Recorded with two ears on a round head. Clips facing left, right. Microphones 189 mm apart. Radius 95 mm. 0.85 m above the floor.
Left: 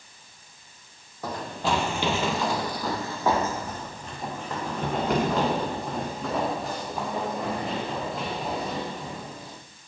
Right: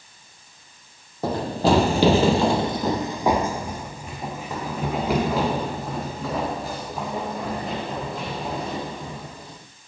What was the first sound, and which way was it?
Running footsteps, 25° right (ahead or behind).